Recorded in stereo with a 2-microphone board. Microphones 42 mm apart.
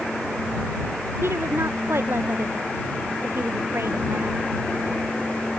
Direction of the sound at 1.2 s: 75° right (ahead or behind).